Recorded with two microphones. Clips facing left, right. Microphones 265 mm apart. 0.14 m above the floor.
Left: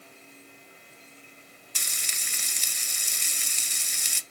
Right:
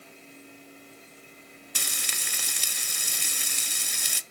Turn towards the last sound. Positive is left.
turn(degrees=-70)  # may be behind; listen again after turning